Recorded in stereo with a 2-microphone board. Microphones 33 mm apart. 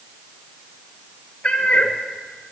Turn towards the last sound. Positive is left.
turn(degrees=40)  # may be behind; listen again after turning